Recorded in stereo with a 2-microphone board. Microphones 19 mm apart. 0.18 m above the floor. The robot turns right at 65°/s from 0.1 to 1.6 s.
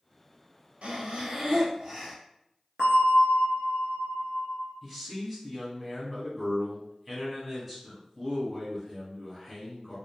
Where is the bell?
70° right (ahead or behind), 1.0 m.